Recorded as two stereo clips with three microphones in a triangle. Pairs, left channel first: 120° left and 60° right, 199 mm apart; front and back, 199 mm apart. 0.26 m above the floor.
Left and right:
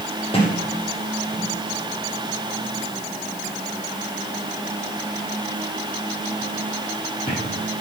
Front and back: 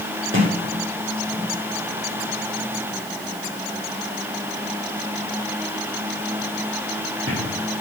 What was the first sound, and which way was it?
A sliding door, straight behind.